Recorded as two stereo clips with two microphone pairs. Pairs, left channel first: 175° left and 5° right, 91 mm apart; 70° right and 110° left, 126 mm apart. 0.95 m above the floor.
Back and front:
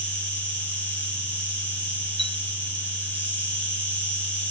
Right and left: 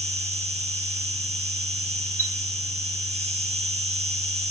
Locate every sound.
0.0 s an insect: 100° left, 1.3 m
2.2 s a chime: 170° left, 0.9 m